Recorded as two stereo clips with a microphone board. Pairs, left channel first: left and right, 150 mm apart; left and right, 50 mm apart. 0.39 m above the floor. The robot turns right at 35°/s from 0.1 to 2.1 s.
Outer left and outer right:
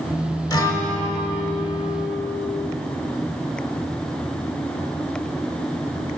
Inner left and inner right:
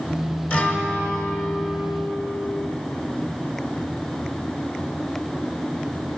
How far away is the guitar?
About 1.1 m.